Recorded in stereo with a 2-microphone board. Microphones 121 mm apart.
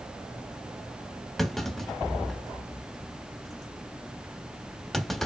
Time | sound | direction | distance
1.4 | a clunk | centre (ahead or behind) | 1.1 m